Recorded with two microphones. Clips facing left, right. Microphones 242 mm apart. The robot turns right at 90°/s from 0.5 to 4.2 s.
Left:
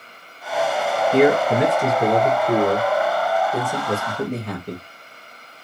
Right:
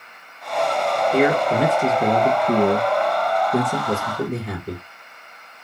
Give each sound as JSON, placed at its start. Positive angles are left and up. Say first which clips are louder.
{"t": 1.1, "sound": "a man speaking", "louder": "left 3 dB", "side_deg": 20, "distance_m": 1.6}